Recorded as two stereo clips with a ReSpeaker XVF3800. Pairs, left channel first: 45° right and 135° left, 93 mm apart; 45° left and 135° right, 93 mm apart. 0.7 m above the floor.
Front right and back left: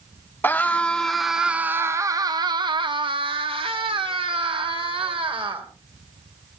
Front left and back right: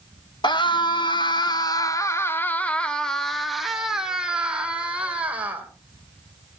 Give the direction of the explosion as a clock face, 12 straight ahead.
No explosion in this recording.